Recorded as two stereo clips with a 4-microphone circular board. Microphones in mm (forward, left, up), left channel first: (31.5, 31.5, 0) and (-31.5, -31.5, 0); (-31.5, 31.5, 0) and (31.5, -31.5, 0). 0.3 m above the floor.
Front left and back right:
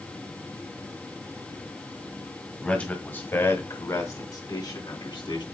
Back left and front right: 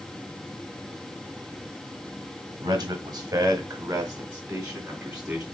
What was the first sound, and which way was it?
A man speaking, 30° right.